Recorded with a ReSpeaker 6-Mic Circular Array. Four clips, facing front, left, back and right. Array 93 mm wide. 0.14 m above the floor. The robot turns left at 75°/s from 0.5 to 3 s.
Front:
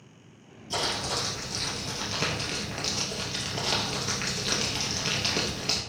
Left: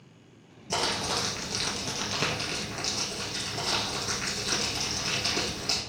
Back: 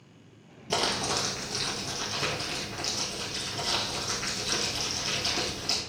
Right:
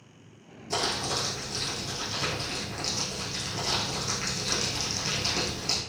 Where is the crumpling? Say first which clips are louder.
Even, back 2 dB; 165° left, 2 m; by 5.8 s 5° right, 2 m.